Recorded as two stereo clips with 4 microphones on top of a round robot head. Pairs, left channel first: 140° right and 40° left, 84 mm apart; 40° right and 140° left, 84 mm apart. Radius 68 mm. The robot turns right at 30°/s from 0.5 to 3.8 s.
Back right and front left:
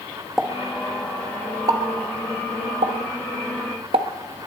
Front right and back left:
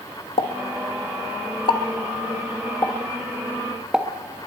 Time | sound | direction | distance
0.4 | a pop | 40° right | 1.2 m